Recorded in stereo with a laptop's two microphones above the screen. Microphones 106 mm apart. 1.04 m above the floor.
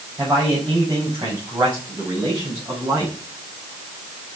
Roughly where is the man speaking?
Right.